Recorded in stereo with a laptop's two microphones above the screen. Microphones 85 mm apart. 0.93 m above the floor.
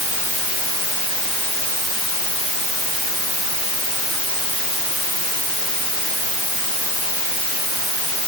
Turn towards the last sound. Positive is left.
No sound to turn to.